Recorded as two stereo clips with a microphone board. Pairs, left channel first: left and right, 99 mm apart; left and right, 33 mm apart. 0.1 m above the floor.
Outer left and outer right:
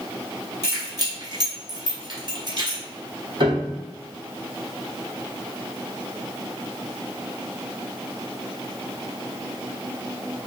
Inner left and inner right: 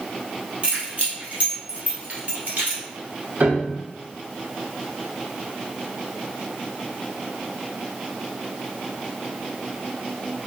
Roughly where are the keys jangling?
Right.